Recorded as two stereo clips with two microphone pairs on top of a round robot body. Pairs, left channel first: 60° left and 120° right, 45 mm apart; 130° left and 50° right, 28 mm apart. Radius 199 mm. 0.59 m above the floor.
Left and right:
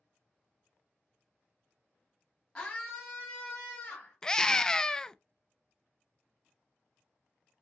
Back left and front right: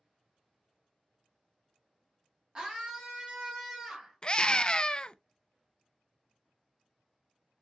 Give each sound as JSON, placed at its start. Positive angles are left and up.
{"t": 2.5, "sound": "a scream", "azimuth_deg": 0, "distance_m": 0.8}
{"t": 4.2, "sound": "a scream", "azimuth_deg": 90, "distance_m": 0.6}